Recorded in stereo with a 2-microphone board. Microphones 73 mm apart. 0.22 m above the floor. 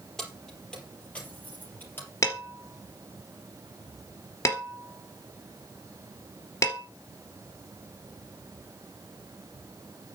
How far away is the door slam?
No door slam in this recording.